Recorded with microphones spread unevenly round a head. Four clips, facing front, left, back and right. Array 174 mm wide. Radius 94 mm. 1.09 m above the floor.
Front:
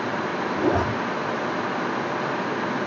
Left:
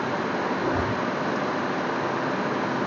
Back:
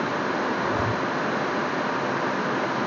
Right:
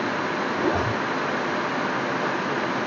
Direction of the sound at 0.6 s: 25° right.